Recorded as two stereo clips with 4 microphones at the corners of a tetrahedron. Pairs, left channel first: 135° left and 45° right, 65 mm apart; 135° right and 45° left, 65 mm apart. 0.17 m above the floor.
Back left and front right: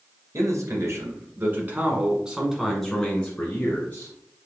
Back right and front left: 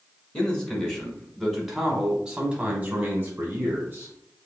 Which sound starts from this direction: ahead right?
A man speaking, at 0.3 s.